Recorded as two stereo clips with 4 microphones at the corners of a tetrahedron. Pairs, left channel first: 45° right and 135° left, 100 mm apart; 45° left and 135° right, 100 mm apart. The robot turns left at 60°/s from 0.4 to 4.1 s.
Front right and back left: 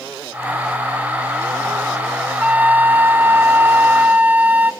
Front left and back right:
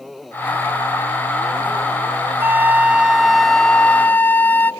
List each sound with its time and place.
2.4 s a flute: 170° right, 0.5 m; by 4.7 s 90° left, 0.5 m